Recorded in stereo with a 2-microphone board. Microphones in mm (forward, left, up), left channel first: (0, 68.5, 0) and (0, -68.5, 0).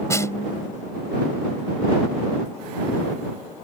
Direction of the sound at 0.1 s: 20° left (ahead or behind).